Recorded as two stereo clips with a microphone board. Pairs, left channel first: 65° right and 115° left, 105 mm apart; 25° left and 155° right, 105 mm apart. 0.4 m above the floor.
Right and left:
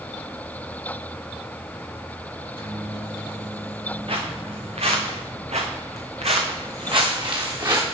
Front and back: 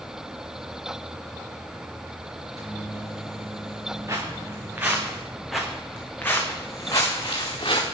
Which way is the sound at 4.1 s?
140° left.